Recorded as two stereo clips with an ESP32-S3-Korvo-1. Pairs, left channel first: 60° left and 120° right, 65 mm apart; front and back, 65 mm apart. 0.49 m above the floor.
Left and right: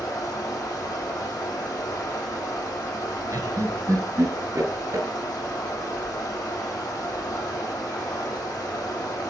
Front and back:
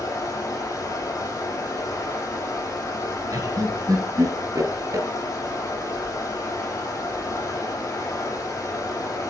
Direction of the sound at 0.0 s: 35° left.